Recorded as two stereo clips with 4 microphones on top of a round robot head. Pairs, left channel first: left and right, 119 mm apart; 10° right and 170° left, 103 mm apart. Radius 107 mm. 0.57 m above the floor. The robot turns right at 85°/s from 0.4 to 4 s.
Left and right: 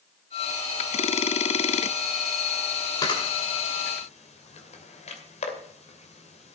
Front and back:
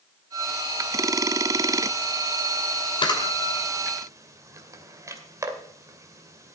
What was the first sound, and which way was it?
A camera shutter, 30° left.